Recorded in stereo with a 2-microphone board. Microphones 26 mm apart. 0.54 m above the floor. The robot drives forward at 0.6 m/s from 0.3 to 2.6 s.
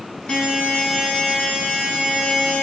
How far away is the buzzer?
About 4.5 m.